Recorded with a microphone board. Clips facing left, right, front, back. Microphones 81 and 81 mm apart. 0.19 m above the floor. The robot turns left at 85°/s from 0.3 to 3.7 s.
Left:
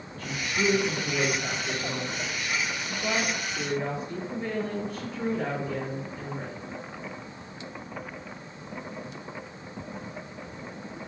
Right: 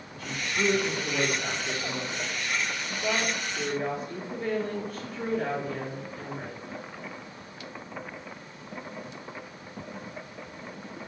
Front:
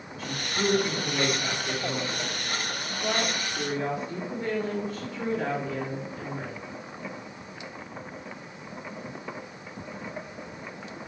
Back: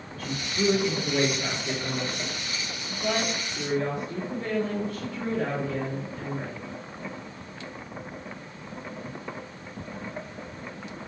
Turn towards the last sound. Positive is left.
turn(degrees=25)